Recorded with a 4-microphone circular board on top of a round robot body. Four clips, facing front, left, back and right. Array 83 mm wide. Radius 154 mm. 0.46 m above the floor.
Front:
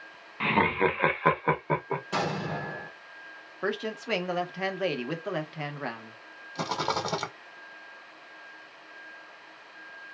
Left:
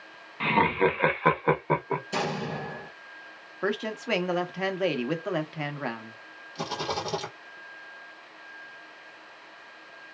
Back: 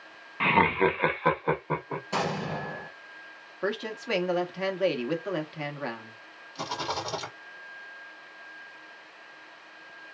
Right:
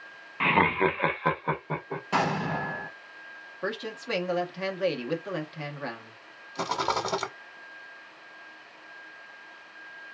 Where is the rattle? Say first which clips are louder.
Right 4 dB, front 3 dB; 50° right, 0.8 m.